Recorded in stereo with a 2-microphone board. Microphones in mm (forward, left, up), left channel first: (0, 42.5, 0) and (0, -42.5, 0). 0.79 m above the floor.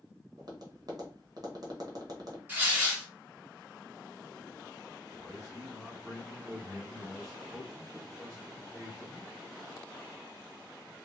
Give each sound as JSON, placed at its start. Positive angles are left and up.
{"t": 0.4, "sound": "tapping", "side_deg": -50, "distance_m": 0.9}
{"t": 2.5, "sound": "tearing paper", "side_deg": -20, "distance_m": 1.1}
{"t": 5.1, "sound": "a man speaking", "side_deg": -30, "distance_m": 1.7}